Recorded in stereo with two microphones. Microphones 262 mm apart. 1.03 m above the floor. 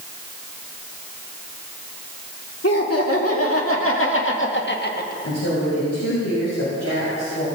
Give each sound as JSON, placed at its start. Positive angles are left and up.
{"t": 2.6, "sound": "laughter", "side_deg": 65, "distance_m": 2.5}
{"t": 5.2, "sound": "a woman speaking", "side_deg": 85, "distance_m": 5.5}